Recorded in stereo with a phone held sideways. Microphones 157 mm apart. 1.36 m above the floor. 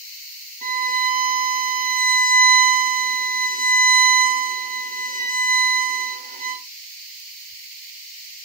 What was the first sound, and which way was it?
A violin, 55° right (ahead or behind).